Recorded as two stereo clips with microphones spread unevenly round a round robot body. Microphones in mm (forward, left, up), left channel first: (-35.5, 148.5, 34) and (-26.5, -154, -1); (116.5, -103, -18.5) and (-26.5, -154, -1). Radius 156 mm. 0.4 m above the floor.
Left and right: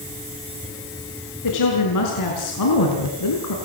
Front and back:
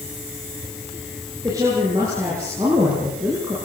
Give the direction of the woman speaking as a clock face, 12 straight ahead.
8 o'clock.